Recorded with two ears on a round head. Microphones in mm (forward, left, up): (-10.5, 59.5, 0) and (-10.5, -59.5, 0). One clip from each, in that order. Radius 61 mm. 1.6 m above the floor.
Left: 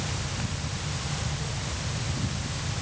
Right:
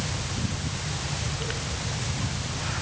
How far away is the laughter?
No laughter in this recording.